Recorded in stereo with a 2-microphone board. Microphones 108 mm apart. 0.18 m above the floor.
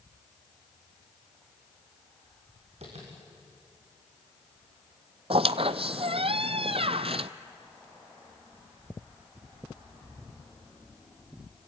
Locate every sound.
2.8 s tapping: 75° right (ahead or behind), 7 m
5.3 s a squeak: 60° right (ahead or behind), 0.6 m